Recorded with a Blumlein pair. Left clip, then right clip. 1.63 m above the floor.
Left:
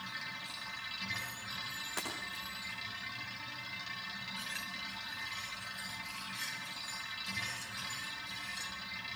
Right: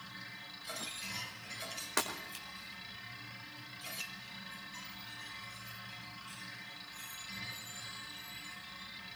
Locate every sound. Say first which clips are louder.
0.0 s a machine running: left 6 dB; 65° left, 4.5 m
2.0 s breaking glass: right 7 dB; 25° right, 4.5 m